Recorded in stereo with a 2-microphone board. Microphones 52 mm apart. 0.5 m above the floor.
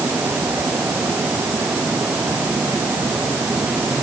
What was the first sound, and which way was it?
Only background noise.